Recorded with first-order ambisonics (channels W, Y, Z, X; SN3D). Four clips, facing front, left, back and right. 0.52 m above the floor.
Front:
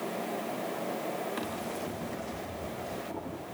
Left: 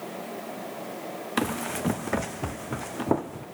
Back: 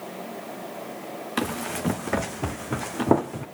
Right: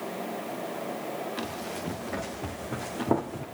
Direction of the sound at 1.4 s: 130° left.